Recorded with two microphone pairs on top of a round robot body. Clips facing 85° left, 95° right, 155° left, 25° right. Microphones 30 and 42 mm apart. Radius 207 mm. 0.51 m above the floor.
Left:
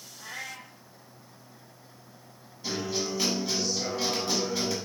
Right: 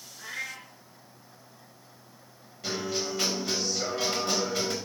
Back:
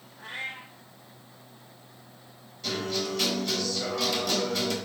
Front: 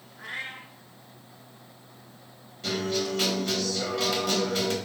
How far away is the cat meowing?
About 1.2 m.